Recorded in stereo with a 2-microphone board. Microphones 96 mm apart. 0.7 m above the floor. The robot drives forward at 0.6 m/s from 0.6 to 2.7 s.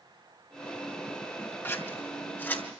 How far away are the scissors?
About 2.5 m.